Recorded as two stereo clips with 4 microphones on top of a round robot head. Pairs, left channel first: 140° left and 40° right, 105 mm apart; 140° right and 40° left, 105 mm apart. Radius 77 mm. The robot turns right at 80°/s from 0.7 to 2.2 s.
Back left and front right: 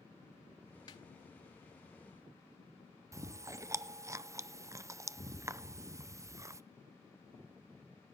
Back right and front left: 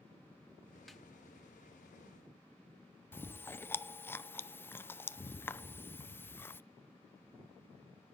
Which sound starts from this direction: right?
Chewing, at 3.1 s.